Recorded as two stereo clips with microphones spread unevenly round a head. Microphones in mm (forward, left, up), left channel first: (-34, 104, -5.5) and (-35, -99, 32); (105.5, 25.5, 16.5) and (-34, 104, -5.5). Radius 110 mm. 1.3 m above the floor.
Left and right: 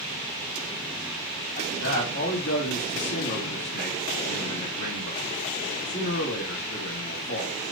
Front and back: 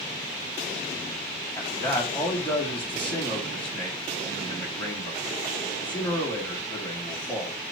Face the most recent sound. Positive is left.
turn(degrees=55)